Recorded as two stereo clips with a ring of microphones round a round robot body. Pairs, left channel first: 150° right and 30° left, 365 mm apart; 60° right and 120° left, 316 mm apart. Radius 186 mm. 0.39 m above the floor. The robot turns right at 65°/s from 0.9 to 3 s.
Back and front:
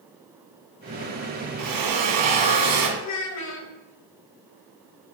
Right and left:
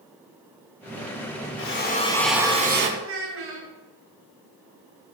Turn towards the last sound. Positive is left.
turn(degrees=170)